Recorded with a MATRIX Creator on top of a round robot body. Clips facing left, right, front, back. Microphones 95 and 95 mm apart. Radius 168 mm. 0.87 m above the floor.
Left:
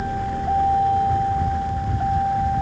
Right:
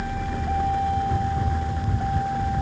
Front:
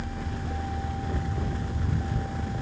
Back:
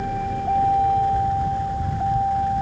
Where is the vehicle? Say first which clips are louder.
Left 4 dB, back 11 dB; 150° left; by 2.6 s 155° left.